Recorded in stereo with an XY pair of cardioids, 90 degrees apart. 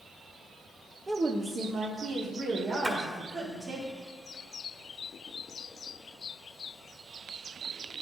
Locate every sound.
1.1 s a woman speaking: 15° right, 0.7 m; by 3.8 s 75° right, 3 m
2.8 s a splash: 25° right, 1.8 m